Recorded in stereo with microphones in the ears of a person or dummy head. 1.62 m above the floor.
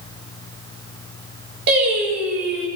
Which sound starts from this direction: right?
Singing, at 1.7 s.